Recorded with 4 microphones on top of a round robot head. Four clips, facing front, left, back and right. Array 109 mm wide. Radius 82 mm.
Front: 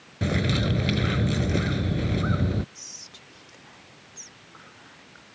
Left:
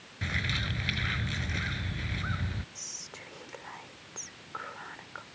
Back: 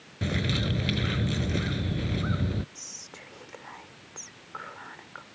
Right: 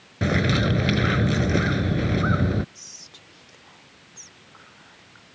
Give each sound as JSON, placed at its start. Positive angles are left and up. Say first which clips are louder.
{"t": 0.2, "sound": "a bird", "louder": "right 14 dB, front 4 dB", "azimuth_deg": -75}
{"t": 2.8, "sound": "whispering", "louder": "left 3 dB, back 2 dB", "azimuth_deg": 140}